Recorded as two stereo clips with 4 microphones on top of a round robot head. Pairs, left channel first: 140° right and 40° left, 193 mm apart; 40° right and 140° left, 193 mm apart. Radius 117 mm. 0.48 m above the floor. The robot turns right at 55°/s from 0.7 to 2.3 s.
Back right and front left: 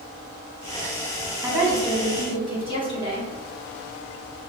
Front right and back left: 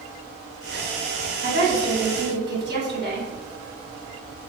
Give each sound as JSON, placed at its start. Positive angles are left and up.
{"t": 1.4, "sound": "a woman speaking", "azimuth_deg": 105, "distance_m": 1.7}